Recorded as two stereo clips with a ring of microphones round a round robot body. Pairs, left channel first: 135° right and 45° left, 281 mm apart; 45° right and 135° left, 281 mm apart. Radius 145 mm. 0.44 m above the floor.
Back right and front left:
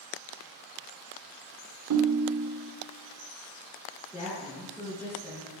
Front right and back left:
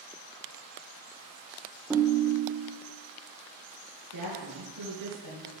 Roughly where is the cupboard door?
No cupboard door in this recording.